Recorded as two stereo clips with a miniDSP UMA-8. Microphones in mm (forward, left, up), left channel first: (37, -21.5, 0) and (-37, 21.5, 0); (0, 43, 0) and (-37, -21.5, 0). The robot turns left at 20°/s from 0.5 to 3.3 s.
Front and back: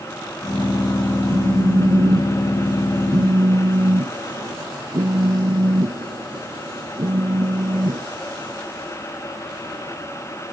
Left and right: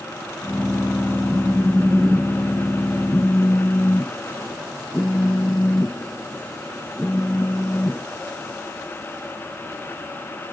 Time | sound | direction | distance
1.3 | a phone buzzing | 175° left | ?